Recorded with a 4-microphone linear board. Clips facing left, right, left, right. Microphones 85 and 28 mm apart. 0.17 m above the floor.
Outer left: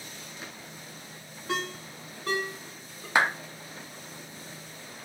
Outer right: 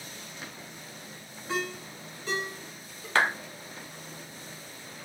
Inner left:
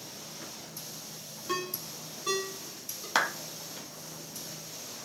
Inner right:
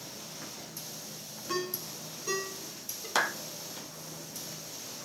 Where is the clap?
15° left (ahead or behind), 0.8 m.